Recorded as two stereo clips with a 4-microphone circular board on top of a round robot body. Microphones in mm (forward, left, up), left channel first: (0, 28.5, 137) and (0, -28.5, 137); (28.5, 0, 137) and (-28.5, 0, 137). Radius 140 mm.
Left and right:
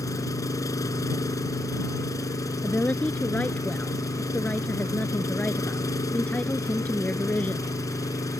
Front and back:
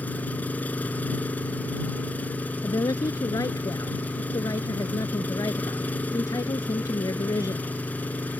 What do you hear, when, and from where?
0.0 s an engine running: 65° left
2.6 s a woman speaking: 20° left